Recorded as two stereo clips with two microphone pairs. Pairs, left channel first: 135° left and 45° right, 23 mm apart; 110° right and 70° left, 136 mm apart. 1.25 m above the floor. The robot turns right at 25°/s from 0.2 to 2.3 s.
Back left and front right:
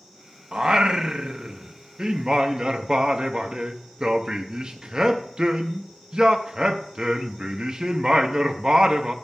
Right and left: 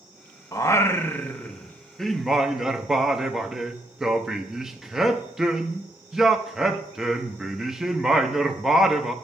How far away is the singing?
About 0.7 m.